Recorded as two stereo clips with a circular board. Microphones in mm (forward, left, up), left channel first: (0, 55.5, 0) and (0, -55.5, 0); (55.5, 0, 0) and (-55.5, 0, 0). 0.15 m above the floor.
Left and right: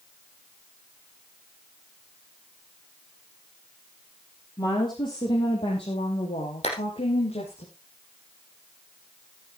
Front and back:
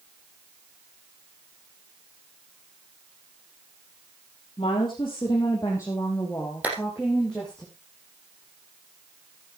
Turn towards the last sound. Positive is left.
turn(degrees=105)